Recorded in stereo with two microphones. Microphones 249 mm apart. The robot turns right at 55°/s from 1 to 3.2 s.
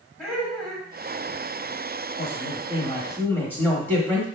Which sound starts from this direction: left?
A man speaking, at 2.2 s.